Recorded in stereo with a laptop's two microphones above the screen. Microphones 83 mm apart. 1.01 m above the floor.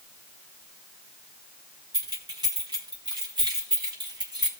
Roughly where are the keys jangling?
Right.